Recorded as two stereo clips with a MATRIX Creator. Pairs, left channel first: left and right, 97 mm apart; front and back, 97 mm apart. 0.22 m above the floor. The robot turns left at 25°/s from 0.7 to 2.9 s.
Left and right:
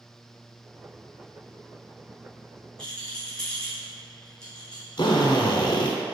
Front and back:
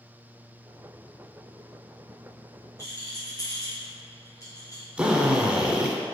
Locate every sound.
2.8 s a rattle: 15° left, 1.9 m
5.0 s a drill: 105° left, 0.7 m